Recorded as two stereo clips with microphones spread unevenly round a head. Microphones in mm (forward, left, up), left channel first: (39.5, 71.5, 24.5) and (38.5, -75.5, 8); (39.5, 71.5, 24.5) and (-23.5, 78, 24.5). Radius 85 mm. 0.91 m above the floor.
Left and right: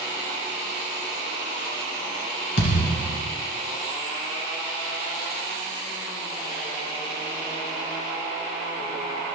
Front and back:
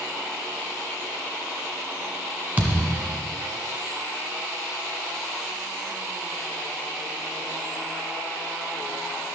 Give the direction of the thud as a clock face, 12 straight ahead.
8 o'clock.